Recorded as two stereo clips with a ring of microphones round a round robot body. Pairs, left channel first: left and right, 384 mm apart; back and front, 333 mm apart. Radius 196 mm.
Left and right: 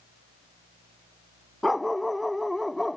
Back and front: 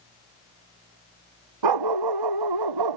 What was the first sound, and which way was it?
A dog barking, straight ahead.